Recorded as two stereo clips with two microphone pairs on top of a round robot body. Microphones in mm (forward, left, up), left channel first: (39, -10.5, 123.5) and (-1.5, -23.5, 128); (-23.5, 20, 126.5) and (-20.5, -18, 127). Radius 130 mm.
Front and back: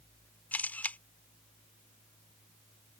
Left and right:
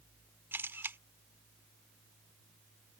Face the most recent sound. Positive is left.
turn(degrees=-40)